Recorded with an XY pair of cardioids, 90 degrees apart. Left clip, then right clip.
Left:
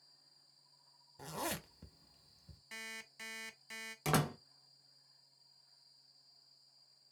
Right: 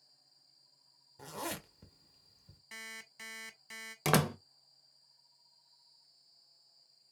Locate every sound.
1.2 s a zipper: 5° left, 0.9 m
2.7 s an alarm clock: 5° right, 1.1 m
4.0 s a door slam: 55° right, 0.6 m